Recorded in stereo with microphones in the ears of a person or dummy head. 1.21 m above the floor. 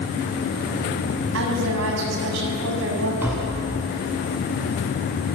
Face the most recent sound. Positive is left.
turn(degrees=-10)  # may be behind; listen again after turning